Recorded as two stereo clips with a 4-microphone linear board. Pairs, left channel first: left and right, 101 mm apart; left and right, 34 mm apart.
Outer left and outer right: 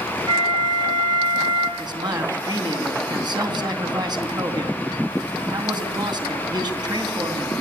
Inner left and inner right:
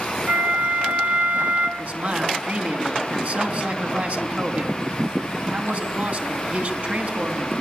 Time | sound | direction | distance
0.3 | a flute | 50° right (ahead or behind) | 3 m
1.8 | a man speaking | 45° right (ahead or behind) | 3.5 m